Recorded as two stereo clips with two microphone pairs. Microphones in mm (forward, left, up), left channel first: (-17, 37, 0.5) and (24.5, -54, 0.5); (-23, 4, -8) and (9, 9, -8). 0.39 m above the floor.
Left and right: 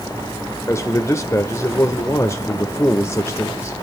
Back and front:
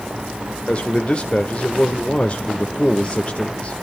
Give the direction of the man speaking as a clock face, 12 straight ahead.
7 o'clock.